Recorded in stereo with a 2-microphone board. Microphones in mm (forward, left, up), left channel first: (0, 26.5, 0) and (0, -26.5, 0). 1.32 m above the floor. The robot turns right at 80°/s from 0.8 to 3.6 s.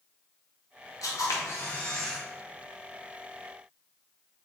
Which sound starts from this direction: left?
A camera shutter, at 1.0 s.